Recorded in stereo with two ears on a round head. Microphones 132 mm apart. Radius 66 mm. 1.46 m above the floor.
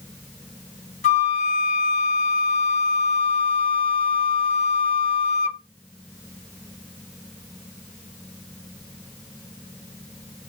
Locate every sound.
1.0 s a flute: 50° left (ahead or behind), 0.5 m